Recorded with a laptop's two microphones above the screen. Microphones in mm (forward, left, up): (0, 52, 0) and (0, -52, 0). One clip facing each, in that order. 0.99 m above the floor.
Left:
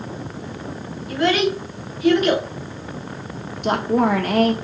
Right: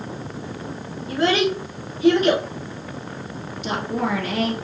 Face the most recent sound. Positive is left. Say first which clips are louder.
# left 6 dB
turn(degrees=55)  # may be behind; listen again after turning